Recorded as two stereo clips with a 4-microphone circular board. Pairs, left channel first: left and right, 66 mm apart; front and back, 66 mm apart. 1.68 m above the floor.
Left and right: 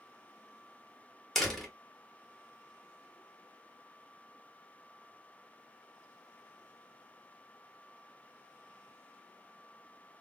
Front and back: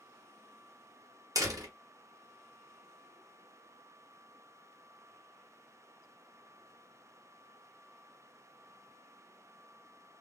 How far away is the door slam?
About 1.0 m.